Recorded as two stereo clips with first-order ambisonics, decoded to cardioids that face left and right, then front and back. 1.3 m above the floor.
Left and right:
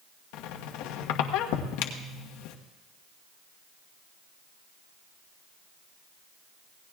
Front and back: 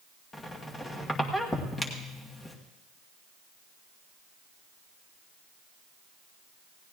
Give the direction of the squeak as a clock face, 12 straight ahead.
9 o'clock.